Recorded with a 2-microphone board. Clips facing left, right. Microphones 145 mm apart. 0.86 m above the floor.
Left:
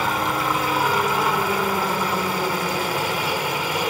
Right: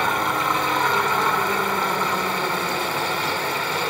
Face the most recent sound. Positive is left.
turn(degrees=15)  # may be behind; listen again after turning